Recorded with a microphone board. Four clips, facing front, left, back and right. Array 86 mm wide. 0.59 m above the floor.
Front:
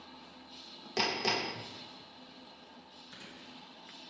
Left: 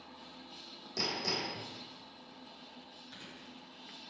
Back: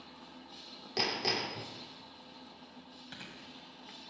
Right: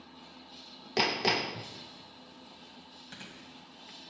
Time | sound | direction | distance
1.0 | hammering | 85° right | 0.5 m
3.1 | chewing | 145° right | 1.8 m